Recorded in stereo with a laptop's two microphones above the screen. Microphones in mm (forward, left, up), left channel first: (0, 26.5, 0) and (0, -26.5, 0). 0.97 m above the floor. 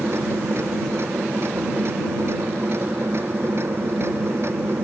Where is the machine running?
50° right (ahead or behind).